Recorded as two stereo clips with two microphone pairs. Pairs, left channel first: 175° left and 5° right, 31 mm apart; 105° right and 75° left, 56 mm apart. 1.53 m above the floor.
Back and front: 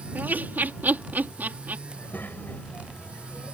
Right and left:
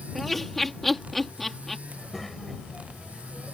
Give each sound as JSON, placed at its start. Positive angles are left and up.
{"t": 0.1, "sound": "laughter", "azimuth_deg": -20}
{"t": 1.9, "sound": "a child speaking", "azimuth_deg": 165}